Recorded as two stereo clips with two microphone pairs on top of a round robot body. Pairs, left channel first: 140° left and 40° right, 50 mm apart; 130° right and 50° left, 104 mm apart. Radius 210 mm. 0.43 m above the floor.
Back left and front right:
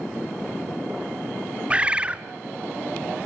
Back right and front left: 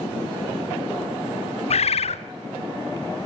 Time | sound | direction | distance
1.7 | a bird | 110° right | 1.1 m